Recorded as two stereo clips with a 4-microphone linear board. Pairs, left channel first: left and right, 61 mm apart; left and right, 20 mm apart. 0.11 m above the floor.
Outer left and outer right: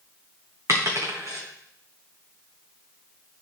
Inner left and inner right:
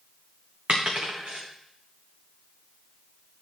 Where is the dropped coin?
55° right (ahead or behind), 1.8 m.